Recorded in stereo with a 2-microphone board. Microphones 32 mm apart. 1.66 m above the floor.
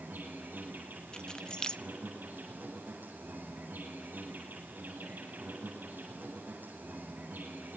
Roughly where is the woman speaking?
I don't hear a woman speaking.